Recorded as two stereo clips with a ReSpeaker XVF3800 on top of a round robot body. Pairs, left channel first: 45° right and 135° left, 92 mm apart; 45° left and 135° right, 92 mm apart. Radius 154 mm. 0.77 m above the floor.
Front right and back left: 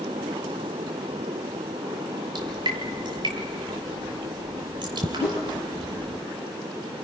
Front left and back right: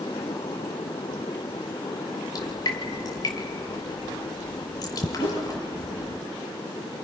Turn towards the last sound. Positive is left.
turn(degrees=65)